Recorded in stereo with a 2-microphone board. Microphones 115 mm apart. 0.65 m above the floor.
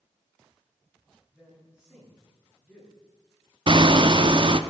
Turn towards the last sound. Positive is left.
turn(degrees=-45)  # may be behind; listen again after turning